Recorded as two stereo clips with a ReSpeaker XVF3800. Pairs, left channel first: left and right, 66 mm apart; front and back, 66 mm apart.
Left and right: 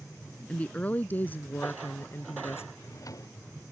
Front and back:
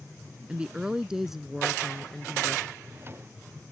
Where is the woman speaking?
130° left; by 2.6 s 70° left.